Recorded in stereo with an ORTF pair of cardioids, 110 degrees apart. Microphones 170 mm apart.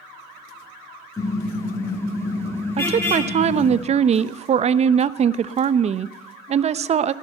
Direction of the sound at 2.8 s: 40° right.